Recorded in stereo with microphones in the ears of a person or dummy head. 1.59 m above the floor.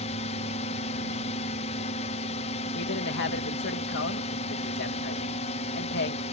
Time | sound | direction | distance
0.0 | a drone | 35° left (ahead or behind) | ?
2.8 | a man speaking | 55° left (ahead or behind) | ?